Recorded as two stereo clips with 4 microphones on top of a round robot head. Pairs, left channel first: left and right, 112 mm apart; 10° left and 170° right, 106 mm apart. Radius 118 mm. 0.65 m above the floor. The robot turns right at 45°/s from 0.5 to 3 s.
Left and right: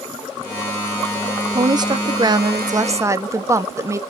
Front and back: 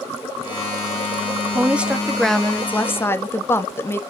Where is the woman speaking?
115° right, 1.3 m; by 4.0 s 45° right, 1.3 m.